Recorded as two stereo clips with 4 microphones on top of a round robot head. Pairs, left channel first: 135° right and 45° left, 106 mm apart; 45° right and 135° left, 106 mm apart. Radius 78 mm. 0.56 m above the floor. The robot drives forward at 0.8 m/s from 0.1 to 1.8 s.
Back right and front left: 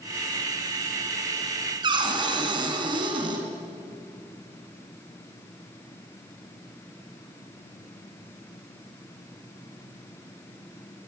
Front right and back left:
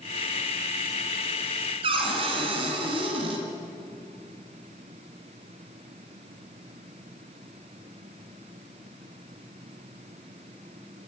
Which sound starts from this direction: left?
A cupboard door, at 1.8 s.